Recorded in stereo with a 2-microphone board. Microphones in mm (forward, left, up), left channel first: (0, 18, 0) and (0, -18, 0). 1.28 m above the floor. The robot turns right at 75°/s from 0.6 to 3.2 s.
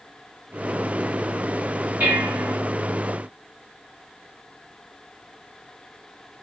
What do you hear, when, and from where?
2.0 s dishes clattering: 105° right, 3 m; by 2.6 s 60° right, 3 m